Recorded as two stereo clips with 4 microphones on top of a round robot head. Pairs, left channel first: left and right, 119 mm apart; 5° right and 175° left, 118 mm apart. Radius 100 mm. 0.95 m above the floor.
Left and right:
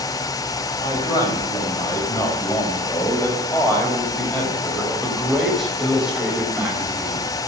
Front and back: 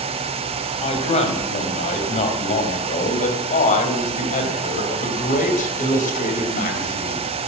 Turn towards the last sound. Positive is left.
turn(degrees=-15)